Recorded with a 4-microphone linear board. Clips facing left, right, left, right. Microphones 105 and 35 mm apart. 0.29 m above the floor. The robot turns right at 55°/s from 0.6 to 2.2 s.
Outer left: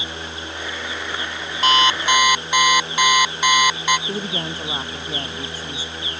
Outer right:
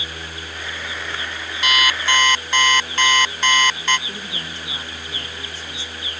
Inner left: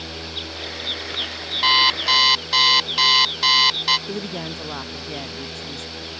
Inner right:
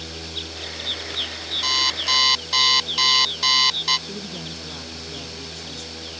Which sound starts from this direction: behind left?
An alarm clock, at 1.6 s.